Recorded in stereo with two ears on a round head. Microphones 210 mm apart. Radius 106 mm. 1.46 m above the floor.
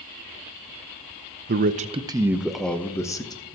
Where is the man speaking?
45° right (ahead or behind), 0.7 m; by 3.4 s 20° left (ahead or behind), 1.3 m.